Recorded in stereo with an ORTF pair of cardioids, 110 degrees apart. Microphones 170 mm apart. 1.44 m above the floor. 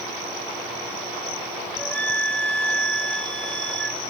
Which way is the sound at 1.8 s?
10° left.